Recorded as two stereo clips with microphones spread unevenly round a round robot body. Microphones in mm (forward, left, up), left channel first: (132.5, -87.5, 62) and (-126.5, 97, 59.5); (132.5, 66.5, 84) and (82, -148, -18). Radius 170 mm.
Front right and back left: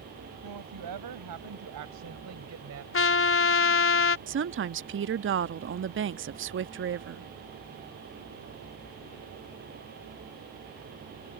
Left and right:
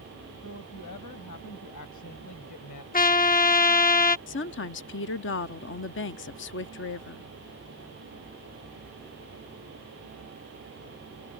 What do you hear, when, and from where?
0.4 s a woman speaking: 130° left; by 2.8 s 100° left
2.9 s a trumpet: 10° left
4.3 s a woman speaking: 125° left